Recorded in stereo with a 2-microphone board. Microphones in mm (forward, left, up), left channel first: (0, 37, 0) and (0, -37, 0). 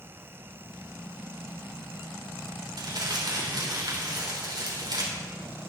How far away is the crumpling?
About 3 m.